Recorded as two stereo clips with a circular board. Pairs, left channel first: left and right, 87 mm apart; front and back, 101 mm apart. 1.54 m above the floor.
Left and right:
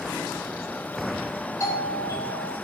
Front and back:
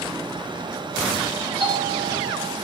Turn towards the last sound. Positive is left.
turn(degrees=145)